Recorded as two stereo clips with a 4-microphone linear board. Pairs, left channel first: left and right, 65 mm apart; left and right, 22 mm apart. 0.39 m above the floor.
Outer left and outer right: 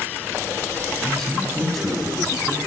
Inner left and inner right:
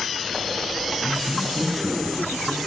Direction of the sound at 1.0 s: 5° left (ahead or behind).